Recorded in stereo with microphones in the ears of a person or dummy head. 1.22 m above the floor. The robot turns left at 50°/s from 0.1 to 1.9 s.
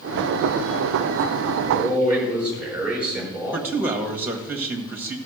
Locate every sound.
1.6 s a man speaking: 25° right (ahead or behind), 5.5 m; by 3.6 s 5° right (ahead or behind), 5.5 m
3.5 s a man speaking: 10° right (ahead or behind), 1.5 m